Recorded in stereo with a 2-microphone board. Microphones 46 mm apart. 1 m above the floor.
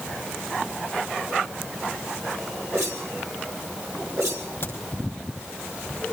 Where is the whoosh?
80° right, 3.5 m.